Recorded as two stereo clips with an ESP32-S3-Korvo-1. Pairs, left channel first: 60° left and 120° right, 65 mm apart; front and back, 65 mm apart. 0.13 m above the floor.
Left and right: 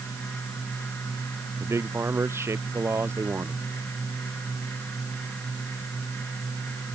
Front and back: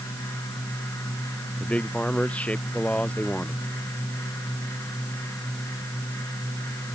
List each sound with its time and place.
1.6 s a man speaking: 70° right